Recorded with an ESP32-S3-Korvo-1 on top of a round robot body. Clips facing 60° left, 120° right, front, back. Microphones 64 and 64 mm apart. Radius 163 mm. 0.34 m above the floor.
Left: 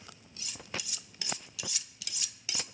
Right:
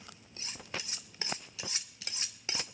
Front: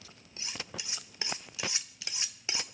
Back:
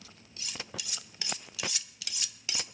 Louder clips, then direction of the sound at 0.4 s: Even, even; 65° right.